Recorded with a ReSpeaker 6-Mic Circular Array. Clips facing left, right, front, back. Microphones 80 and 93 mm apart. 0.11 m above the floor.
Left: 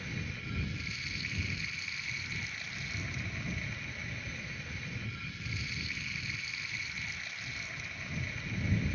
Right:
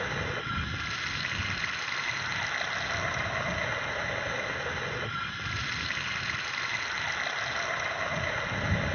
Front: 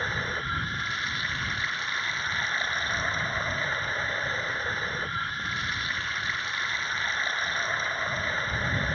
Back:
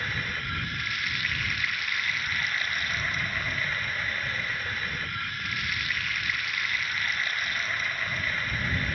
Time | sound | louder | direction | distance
0.0 | running water | right 10 dB, front 3 dB | 60° right | ?